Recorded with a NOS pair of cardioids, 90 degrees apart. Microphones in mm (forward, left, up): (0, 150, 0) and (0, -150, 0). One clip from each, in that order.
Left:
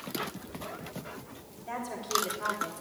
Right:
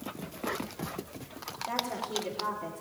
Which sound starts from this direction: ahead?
A woman speaking, at 1.7 s.